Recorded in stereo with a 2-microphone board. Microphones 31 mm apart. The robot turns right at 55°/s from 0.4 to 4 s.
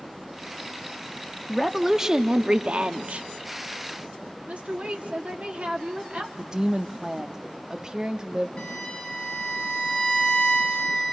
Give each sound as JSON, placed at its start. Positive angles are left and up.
{"t": 1.5, "sound": "a woman speaking", "azimuth_deg": 175, "distance_m": 0.8}
{"t": 4.5, "sound": "a woman speaking", "side_deg": -45, "distance_m": 1.4}
{"t": 6.4, "sound": "a woman speaking", "side_deg": -25, "distance_m": 0.7}
{"t": 8.6, "sound": "a violin", "side_deg": 30, "distance_m": 3.0}